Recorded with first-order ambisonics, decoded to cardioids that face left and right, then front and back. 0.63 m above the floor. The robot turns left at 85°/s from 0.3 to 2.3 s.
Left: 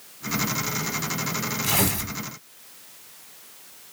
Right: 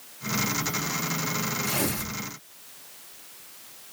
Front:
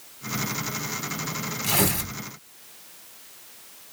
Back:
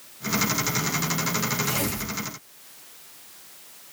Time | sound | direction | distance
1.6 | tearing paper | 60° left | 1.7 m